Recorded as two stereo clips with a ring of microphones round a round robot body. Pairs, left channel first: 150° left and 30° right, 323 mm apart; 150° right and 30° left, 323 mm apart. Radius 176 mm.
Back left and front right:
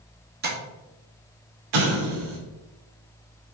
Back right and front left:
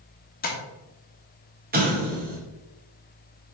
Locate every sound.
0.4 s tapping: 90° right, 1.9 m
1.7 s an explosion: 35° right, 2 m